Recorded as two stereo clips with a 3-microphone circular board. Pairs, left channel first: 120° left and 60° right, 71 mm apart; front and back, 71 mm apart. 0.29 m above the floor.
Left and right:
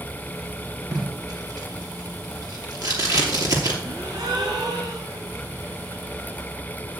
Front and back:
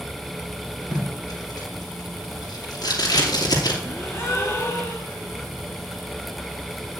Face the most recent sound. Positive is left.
turn(degrees=-55)